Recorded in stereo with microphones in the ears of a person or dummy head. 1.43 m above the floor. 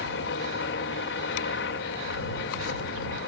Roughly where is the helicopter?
Left.